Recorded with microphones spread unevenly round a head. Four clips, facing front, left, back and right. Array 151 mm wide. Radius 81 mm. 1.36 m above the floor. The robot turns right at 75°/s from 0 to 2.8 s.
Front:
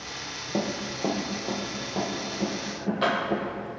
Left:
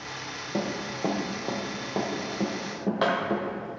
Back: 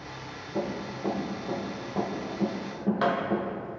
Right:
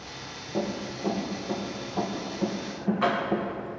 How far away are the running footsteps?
About 2 m.